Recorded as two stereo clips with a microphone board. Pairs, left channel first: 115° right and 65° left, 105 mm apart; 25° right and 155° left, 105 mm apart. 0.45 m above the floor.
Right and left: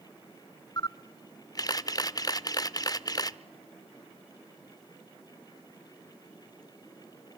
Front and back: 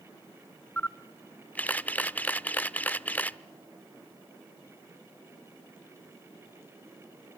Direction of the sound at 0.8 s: 90° right.